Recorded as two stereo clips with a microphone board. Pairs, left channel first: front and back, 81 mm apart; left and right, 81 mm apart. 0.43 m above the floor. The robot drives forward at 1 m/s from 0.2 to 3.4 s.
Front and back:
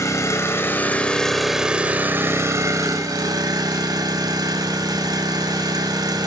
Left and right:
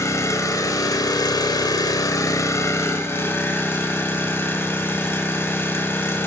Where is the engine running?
45° left, 1.9 m; by 6.3 s 150° left, 2.5 m.